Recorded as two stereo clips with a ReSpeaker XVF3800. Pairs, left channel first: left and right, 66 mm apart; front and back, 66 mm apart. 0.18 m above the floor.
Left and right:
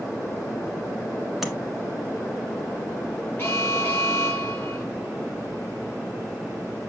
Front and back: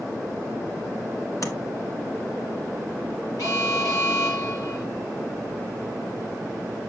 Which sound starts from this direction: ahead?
Tapping, at 1.4 s.